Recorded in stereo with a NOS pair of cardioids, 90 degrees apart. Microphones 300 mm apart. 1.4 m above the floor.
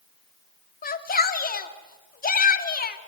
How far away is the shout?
About 3 m.